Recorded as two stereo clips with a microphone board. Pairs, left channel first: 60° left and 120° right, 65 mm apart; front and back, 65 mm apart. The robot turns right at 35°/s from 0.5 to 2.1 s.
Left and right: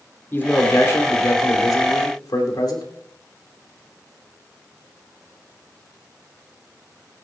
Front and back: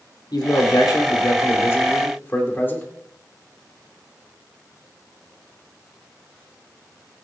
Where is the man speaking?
5° left, 2.5 m; by 2.9 s 60° left, 2.5 m.